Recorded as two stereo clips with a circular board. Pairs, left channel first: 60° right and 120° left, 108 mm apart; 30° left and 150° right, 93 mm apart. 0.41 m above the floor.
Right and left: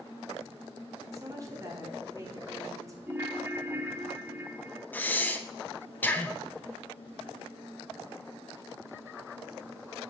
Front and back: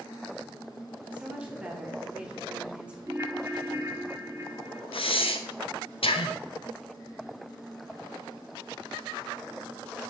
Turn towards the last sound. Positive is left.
turn(degrees=15)